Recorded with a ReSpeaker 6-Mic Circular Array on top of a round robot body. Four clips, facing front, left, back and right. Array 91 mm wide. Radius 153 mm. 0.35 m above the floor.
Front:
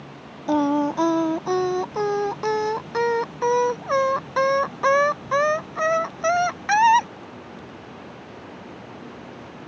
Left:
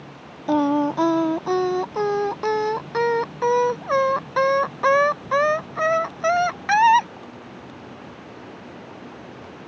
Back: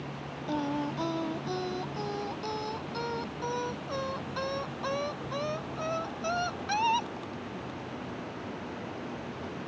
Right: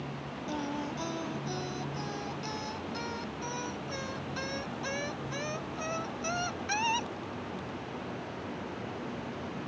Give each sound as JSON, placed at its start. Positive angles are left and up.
{"t": 0.5, "sound": "singing", "azimuth_deg": 55}